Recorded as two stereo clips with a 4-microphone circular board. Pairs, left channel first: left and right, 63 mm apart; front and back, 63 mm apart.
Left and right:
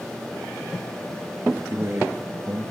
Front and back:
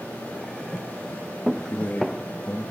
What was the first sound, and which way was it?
A man speaking, 55° right.